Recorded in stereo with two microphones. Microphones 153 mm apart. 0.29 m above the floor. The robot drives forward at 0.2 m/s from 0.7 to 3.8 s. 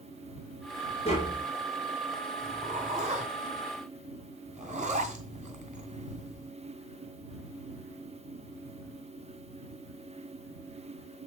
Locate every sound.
1.1 s tapping: 40° left (ahead or behind), 3 m
2.4 s a zipper: 50° right (ahead or behind), 2.5 m